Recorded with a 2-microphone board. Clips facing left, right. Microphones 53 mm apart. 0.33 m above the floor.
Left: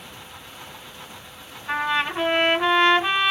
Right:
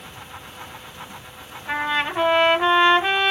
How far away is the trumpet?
About 1.6 m.